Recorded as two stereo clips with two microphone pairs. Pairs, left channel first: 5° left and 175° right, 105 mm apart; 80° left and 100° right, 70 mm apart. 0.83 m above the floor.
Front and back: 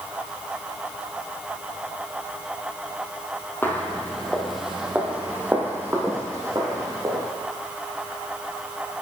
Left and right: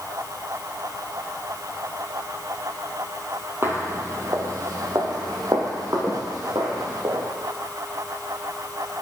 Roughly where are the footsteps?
Ahead right.